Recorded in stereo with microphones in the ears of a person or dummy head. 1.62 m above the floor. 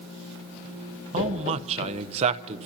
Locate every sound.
1.1 s a man speaking: 35° right (ahead or behind), 0.8 m